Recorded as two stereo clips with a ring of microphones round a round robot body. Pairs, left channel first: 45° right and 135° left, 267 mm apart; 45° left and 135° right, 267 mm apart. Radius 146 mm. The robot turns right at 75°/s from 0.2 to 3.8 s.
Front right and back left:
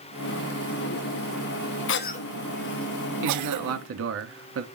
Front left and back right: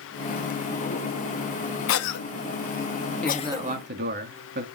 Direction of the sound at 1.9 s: Straight ahead.